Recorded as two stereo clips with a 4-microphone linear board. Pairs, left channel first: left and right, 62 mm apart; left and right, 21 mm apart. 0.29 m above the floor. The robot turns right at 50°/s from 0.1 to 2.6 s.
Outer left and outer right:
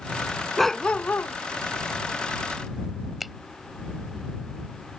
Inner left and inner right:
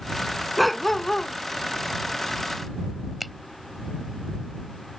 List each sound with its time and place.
0.6 s a dog barking: straight ahead; by 1.4 s 40° left
3.2 s a finger snap: centre (ahead or behind)